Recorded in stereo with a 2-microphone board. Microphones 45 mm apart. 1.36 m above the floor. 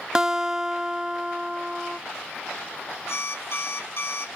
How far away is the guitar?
About 0.5 m.